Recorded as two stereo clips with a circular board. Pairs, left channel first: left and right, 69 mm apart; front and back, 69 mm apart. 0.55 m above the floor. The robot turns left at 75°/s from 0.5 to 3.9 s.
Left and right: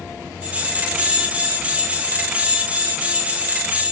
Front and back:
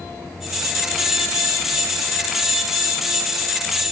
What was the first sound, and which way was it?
Only background noise.